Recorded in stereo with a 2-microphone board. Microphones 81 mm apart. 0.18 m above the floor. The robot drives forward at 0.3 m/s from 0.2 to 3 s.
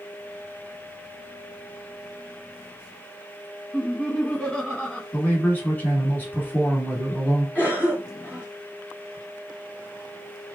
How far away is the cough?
About 1.6 m.